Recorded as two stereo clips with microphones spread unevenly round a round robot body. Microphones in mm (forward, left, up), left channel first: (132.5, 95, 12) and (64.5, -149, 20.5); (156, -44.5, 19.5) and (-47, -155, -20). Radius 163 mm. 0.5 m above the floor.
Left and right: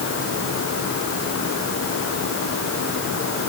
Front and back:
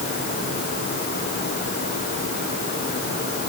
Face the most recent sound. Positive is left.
No sound to turn to.